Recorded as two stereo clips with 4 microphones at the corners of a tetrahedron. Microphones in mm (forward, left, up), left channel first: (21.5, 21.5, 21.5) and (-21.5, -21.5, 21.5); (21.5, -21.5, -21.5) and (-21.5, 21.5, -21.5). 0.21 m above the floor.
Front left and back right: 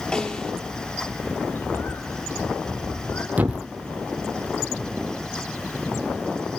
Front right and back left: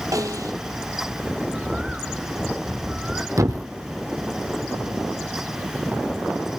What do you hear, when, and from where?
0.1 s a snare drum: 120° left, 3.5 m
1.4 s a bird: 60° left, 2 m
3.4 s a thud: 165° left, 2 m